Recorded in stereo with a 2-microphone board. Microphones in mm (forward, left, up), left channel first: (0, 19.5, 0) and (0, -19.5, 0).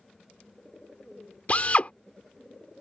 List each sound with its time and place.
1.5 s a drill: 40° left (ahead or behind)